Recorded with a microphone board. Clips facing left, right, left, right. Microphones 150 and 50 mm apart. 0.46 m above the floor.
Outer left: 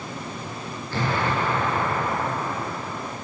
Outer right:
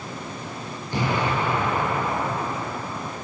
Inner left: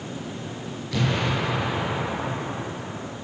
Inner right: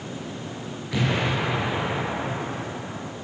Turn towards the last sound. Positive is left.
turn(degrees=-20)  # may be behind; listen again after turning